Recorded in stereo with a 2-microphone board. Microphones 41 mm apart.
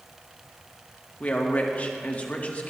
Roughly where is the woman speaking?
Left.